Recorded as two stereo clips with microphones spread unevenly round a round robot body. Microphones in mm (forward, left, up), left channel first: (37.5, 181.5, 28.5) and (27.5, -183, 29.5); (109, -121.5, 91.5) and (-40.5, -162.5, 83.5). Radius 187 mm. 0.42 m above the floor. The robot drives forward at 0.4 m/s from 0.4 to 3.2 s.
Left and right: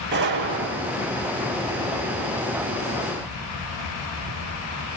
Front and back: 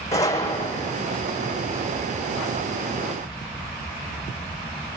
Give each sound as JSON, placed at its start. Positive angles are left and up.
{"t": 0.1, "sound": "a gunshot", "azimuth_deg": -30, "distance_m": 6.0}